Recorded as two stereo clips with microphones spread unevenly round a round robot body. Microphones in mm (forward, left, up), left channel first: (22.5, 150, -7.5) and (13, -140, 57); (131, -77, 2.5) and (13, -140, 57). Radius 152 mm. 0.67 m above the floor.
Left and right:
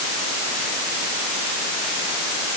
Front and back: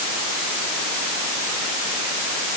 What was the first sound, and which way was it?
Only background noise.